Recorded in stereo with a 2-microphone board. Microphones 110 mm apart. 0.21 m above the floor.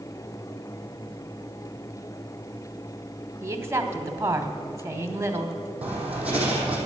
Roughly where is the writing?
Centre.